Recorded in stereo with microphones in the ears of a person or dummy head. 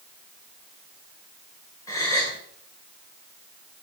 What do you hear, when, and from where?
1.9 s a gasp: 15° left (ahead or behind), 2 m